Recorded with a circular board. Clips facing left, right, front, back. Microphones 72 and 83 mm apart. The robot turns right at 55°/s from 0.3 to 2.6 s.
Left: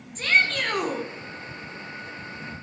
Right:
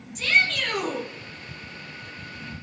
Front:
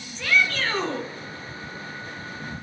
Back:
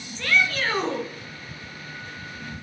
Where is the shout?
80° left, 2.0 m; by 1.1 s 125° left, 2.0 m.